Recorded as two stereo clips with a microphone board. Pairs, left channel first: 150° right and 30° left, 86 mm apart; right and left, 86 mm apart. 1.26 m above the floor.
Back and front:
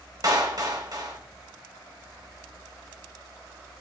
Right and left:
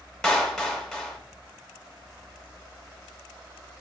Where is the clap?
10° right, 0.7 m.